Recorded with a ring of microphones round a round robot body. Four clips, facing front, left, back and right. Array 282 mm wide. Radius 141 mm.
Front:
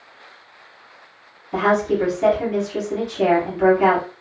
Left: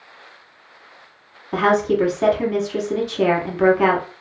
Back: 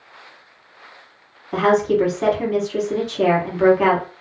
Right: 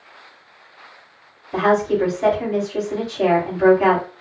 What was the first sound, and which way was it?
A woman speaking, 120° left.